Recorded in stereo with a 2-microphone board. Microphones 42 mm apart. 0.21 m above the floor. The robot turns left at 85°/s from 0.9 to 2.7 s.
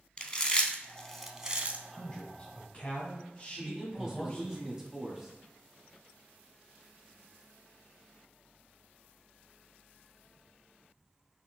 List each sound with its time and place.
0.2 s chewing: 20° left (ahead or behind), 0.5 m; by 1.8 s 40° right (ahead or behind), 0.5 m
1.9 s a man speaking: 150° left, 1.4 m; by 4.6 s 85° left, 1.4 m
3.6 s a man speaking: 20° right (ahead or behind), 1.4 m